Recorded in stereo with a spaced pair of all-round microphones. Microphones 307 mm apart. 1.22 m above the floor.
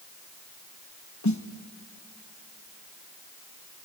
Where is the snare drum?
75° left (ahead or behind), 1.2 m.